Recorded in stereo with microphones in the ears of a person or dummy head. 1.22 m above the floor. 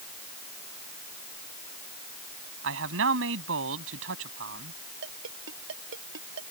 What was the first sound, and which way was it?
A man speaking, 85° right.